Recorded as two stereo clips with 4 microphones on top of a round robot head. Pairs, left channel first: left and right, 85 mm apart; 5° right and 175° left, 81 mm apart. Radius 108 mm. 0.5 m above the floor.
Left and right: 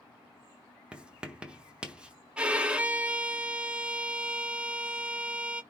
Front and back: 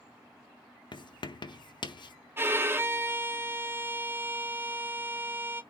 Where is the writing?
10° right, 0.9 m.